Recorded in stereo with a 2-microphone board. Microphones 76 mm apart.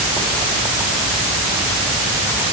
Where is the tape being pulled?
No tape being pulled in this recording.